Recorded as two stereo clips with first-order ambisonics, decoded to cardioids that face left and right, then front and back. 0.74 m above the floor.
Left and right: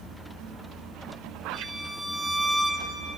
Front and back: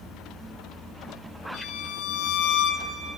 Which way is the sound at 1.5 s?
5° left.